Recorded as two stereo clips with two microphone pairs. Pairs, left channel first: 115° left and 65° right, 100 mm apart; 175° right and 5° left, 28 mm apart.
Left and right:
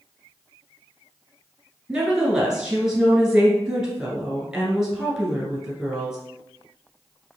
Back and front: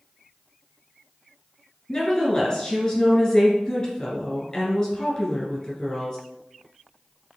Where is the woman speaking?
145° right, 1.7 m.